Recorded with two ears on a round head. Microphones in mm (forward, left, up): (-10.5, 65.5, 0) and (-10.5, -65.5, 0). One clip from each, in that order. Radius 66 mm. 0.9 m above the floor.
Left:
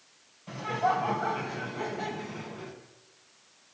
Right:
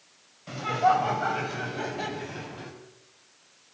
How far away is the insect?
No insect in this recording.